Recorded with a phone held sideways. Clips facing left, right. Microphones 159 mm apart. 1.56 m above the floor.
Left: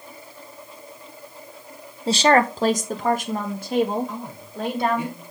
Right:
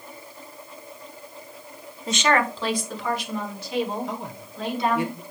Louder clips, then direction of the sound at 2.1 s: Left 5 dB; 30° left (ahead or behind).